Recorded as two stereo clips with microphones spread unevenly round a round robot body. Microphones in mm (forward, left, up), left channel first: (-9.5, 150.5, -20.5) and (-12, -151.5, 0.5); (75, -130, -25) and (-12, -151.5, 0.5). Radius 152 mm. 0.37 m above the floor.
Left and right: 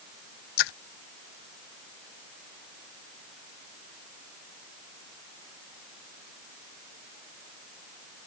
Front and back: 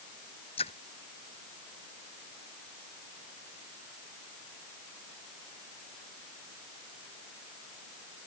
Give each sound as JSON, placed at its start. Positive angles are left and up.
{"t": 0.6, "sound": "a splash", "azimuth_deg": 80}